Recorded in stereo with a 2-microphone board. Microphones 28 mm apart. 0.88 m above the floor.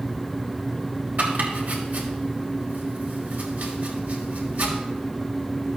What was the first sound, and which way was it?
Chopping, 80° right.